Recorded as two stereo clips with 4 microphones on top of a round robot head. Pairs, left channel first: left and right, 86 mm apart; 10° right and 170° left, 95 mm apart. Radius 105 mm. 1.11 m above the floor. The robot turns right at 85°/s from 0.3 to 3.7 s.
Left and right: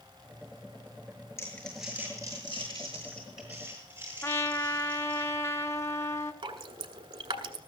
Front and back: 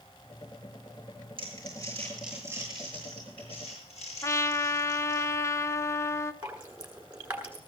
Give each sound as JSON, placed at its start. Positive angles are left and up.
{"t": 1.4, "sound": "crumpling", "azimuth_deg": 145, "distance_m": 7.0}
{"t": 4.2, "sound": "a trumpet", "azimuth_deg": 40, "distance_m": 0.9}
{"t": 6.4, "sound": "dripping", "azimuth_deg": -110, "distance_m": 1.2}